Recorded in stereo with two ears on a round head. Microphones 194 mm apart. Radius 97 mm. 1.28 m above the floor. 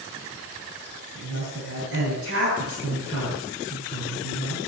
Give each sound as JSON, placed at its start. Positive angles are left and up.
{"t": 1.1, "sound": "a woman speaking", "side_deg": -70, "distance_m": 9.0}